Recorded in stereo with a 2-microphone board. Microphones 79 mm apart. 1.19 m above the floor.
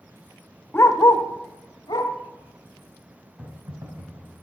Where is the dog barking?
30° left (ahead or behind), 1.4 m; by 2.1 s 70° left (ahead or behind), 2 m.